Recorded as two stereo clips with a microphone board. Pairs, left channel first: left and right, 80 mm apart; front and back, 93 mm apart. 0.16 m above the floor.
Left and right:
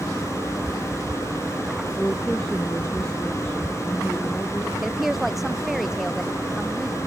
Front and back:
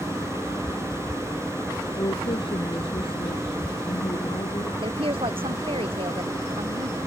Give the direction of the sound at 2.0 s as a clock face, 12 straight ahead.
12 o'clock.